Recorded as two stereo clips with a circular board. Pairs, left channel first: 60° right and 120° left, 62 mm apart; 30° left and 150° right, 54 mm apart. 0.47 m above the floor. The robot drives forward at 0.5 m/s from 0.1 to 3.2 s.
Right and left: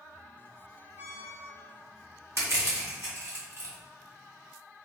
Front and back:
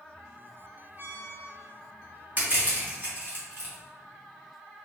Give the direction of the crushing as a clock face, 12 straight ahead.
7 o'clock.